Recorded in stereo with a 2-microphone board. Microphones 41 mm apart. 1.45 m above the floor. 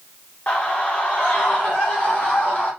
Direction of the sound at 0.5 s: 35° left (ahead or behind).